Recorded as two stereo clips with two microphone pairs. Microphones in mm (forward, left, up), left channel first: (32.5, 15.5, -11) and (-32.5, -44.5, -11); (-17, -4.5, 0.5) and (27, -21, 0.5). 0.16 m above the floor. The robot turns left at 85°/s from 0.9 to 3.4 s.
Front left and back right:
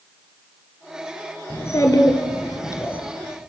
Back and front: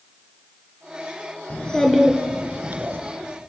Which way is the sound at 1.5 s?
105° left.